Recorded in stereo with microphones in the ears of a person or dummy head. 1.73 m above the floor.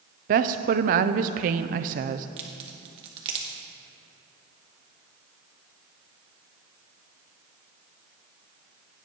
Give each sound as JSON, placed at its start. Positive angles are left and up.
{"t": 0.3, "sound": "a woman speaking", "side_deg": -45, "distance_m": 0.6}
{"t": 2.4, "sound": "a crack", "side_deg": -30, "distance_m": 1.4}